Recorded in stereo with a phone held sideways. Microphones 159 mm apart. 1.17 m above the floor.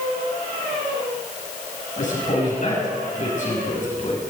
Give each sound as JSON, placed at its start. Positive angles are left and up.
{"t": 2.0, "sound": "a man speaking", "side_deg": 50, "distance_m": 7.0}